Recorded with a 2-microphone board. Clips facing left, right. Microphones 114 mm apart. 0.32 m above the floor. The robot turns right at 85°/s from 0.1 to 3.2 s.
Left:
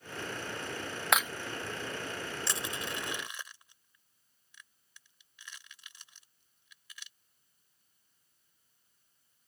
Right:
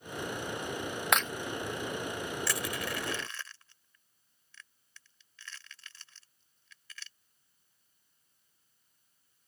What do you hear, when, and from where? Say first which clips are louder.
1.1 s breaking glass: even; centre (ahead or behind); by 1.3 s 15° left (ahead or behind)
2.5 s crushing: right 3 dB; 25° left (ahead or behind); by 7.1 s 15° left (ahead or behind)